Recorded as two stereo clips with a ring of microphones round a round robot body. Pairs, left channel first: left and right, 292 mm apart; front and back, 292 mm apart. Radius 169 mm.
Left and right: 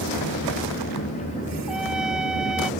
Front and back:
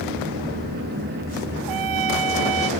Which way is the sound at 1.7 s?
Straight behind.